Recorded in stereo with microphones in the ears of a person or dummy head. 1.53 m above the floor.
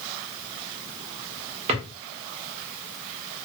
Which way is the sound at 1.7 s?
35° right (ahead or behind).